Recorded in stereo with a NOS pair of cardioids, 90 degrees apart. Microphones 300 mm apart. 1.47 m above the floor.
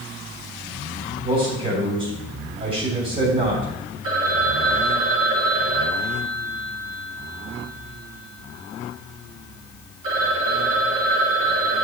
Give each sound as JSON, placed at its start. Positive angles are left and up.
{"t": 1.2, "sound": "a man speaking", "azimuth_deg": -30, "distance_m": 3.0}
{"t": 4.0, "sound": "a phone ringing", "azimuth_deg": -45, "distance_m": 4.5}